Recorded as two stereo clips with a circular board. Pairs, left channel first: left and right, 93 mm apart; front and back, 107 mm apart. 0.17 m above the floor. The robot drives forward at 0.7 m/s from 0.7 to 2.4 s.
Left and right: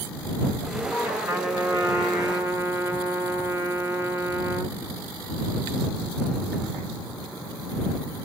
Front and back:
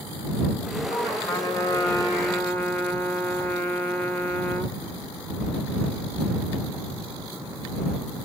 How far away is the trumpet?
About 2.5 m.